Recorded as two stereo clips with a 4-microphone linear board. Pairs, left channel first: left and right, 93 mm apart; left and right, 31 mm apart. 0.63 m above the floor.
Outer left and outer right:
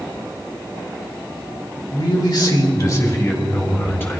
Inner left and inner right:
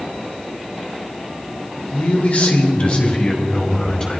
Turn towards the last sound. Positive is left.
turn(degrees=25)  # may be behind; listen again after turning